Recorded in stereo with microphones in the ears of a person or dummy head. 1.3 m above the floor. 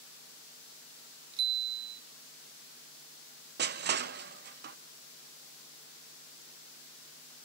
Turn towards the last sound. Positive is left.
turn(degrees=-50)  # may be behind; listen again after turning